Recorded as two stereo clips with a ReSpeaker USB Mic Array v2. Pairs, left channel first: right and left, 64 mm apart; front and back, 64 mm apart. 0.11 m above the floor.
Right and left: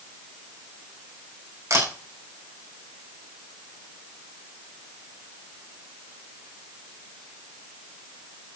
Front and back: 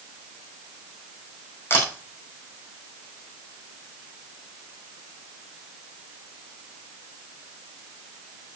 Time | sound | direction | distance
1.7 | a camera shutter | 50° left | 7.5 m